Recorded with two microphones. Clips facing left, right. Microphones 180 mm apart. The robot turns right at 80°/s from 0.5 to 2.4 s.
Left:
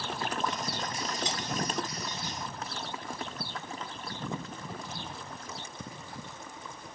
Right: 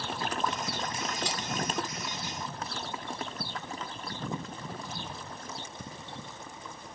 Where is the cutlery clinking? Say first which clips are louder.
Even; 20° left (ahead or behind), 2.5 m; by 1.4 s 30° left (ahead or behind), 2.5 m.